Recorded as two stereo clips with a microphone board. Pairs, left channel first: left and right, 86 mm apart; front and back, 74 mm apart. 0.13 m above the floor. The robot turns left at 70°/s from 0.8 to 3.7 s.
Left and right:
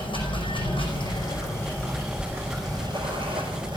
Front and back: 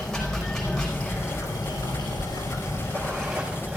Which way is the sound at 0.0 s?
85° left.